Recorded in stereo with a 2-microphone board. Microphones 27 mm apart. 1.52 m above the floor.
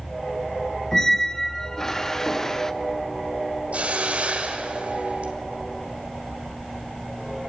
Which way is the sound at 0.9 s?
15° left (ahead or behind).